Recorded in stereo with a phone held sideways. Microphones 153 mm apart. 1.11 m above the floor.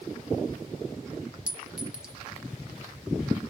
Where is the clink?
5° right (ahead or behind), 0.6 m.